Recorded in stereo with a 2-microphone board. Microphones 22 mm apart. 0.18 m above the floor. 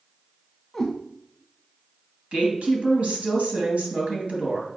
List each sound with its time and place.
0.7 s a cat meowing: 5° left (ahead or behind), 2.5 m
2.3 s a woman speaking: 65° right (ahead or behind), 3 m